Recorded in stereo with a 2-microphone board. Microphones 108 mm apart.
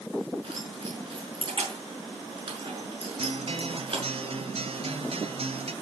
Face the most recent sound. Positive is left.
turn(degrees=-65)  # may be behind; listen again after turning